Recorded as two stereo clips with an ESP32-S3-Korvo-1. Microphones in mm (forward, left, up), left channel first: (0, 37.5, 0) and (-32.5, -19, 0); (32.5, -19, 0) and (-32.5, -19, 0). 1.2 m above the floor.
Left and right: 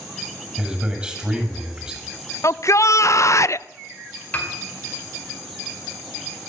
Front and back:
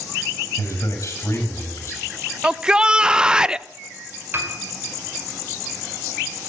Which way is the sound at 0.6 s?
45° right.